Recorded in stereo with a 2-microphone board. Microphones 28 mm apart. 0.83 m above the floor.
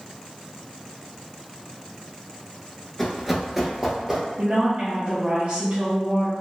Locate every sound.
3.0 s running footsteps: 10° left (ahead or behind), 0.8 m; by 4.2 s 10° right (ahead or behind), 1.2 m
4.4 s a woman speaking: 55° right (ahead or behind), 0.7 m